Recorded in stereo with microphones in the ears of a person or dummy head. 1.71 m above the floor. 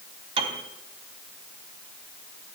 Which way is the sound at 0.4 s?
35° right (ahead or behind).